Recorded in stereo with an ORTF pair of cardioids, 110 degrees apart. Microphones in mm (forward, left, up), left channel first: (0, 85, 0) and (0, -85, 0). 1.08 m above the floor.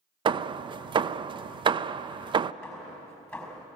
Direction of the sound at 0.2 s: 30° right.